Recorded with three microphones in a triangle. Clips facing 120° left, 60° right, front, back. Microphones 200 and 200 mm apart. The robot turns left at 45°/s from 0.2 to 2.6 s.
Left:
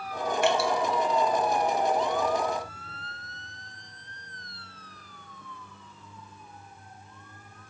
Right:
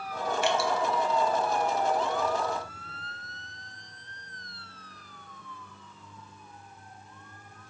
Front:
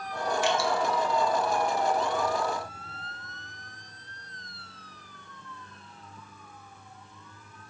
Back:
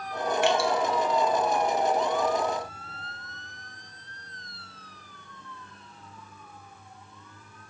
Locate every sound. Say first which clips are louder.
0.4 s dripping: left 3 dB, back 4 dB; 155° left, 1.0 m; by 0.7 s 140° left, 1.0 m